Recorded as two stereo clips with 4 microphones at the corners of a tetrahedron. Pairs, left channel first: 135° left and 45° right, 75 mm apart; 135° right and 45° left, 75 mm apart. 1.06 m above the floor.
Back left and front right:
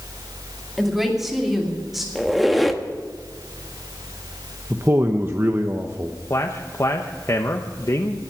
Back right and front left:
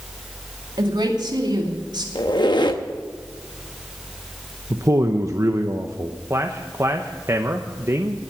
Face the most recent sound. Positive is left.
turn(degrees=90)